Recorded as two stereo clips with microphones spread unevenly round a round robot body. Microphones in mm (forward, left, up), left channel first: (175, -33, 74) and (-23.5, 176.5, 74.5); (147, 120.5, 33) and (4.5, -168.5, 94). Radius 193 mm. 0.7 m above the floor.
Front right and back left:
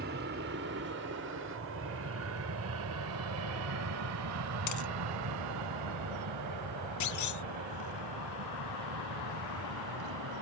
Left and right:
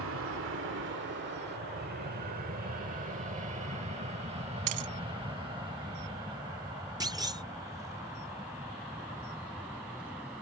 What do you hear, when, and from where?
0.0 s an aircraft: 170° right; by 10.4 s 155° left
4.7 s a dropped coin: 90° right
7.0 s a clunk: 35° right